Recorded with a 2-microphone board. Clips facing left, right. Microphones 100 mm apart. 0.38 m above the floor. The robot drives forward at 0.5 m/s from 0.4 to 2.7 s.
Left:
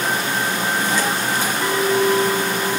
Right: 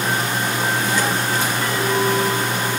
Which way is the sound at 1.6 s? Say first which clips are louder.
Left 4 dB; 15° left (ahead or behind).